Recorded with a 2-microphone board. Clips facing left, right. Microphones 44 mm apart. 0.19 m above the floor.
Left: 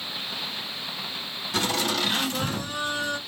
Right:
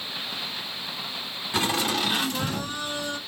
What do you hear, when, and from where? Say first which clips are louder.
1.5 s laughter: right 1 dB; 20° right (ahead or behind), 1.7 m; by 3.2 s 25° left (ahead or behind), 1.6 m